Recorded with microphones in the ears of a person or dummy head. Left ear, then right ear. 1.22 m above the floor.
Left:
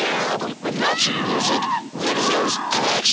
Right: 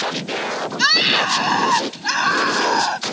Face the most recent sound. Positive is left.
turn(degrees=-75)  # may be behind; listen again after turning